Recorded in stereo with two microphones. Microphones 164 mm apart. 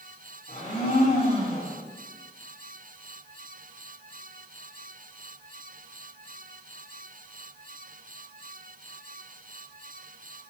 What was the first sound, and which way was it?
A blender, 45° left (ahead or behind).